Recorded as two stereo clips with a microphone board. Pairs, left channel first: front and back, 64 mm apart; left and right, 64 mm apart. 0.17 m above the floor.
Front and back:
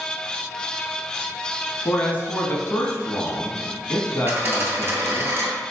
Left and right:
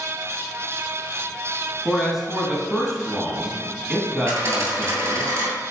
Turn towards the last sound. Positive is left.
turn(degrees=-125)